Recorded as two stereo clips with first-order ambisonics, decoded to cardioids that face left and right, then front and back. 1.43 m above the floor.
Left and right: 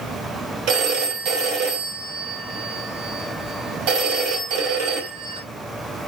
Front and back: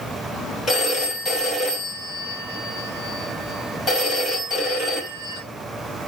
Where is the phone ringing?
70° right, 3 m.